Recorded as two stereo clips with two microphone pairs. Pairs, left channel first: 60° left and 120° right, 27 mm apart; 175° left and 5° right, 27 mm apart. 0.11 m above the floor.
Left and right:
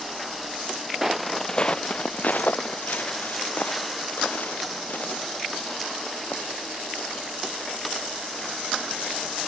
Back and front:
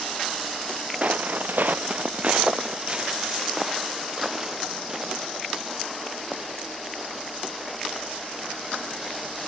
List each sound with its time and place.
1.0 s footsteps: 40° right; by 9.4 s 75° left